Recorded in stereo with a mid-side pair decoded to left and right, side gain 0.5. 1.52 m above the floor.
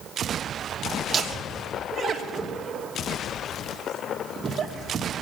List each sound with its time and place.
1.1 s laughter: 40° right, 2.5 m